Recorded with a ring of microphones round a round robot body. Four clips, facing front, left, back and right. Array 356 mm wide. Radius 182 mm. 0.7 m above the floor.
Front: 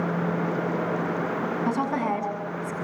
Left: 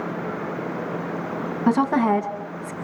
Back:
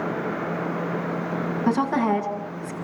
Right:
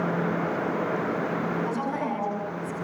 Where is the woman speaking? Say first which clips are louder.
Left 9 dB, back 6 dB; 105° left, 7.5 m.